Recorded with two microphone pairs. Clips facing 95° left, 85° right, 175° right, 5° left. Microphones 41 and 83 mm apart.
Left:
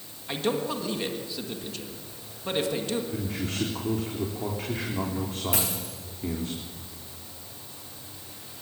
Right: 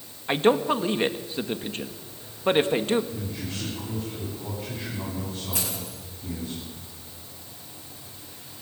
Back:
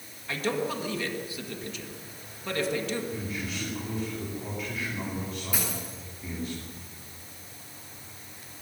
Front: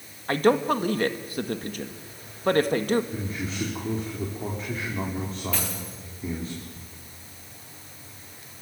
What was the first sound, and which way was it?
A man speaking, 30° right.